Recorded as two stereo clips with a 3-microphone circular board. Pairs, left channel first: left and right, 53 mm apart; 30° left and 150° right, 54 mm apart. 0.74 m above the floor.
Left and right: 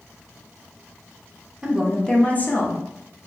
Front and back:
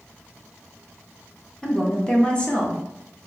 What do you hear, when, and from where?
1.6 s a woman speaking: 35° right, 0.9 m; by 2.8 s 85° left, 1.2 m